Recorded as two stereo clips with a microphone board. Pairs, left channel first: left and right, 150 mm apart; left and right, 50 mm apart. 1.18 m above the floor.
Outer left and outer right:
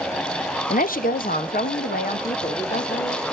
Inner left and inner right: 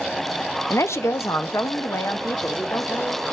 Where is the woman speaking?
70° left (ahead or behind), 0.7 m; by 3.2 s 75° left (ahead or behind), 2.5 m.